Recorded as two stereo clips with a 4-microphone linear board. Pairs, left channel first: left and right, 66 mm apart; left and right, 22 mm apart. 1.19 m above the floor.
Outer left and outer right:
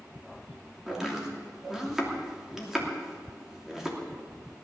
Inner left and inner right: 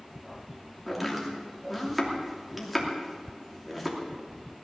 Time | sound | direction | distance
0.9 | chopping | 10° right (ahead or behind) | 2.5 m